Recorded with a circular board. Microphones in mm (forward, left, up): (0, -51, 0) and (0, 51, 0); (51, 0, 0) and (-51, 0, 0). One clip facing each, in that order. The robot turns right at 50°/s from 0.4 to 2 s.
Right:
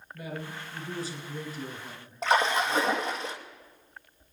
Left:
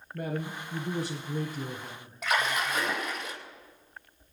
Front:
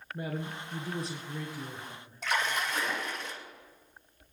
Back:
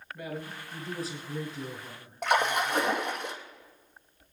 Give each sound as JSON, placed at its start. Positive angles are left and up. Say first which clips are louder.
{"t": 0.1, "sound": "a man speaking", "louder": "left 4 dB, front 2 dB", "azimuth_deg": 60, "distance_m": 2.5}
{"t": 2.2, "sound": "a splash", "louder": "right 4 dB, back 6 dB", "azimuth_deg": -150, "distance_m": 2.5}